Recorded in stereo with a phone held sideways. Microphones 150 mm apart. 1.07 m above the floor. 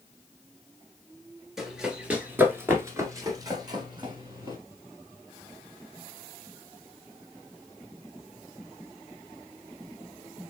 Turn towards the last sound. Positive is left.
turn(degrees=-30)  # may be behind; listen again after turning